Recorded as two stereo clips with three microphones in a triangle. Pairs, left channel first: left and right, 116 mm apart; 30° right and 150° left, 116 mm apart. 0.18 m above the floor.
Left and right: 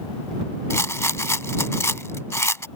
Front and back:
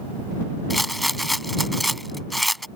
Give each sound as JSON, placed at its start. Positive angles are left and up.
{"t": 0.7, "sound": "a rattle", "azimuth_deg": 60}